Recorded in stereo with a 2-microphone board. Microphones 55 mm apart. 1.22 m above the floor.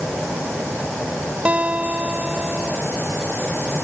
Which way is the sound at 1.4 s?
30° right (ahead or behind).